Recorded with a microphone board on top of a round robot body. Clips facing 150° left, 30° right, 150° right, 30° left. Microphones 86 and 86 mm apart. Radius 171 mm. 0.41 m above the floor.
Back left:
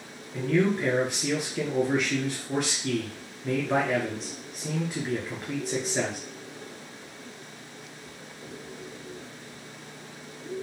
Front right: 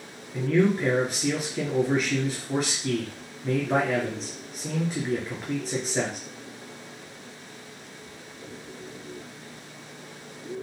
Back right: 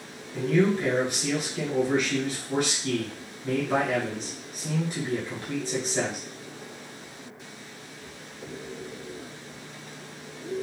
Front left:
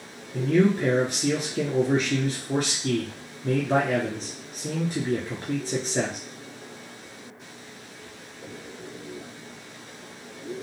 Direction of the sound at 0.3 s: 60° left.